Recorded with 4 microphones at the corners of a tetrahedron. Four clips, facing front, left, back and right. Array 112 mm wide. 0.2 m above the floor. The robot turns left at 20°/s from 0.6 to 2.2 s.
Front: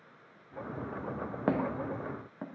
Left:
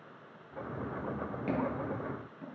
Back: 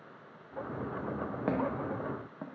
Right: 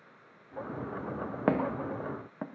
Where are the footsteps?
80° right, 0.9 m; by 2.5 s 95° right, 0.9 m.